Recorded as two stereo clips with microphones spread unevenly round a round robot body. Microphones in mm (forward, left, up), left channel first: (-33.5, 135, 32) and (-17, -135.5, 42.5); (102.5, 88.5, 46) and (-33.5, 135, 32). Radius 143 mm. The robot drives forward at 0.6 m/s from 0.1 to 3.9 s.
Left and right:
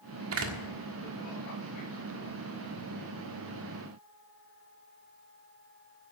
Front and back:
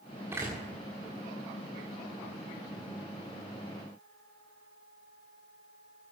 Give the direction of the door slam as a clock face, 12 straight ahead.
4 o'clock.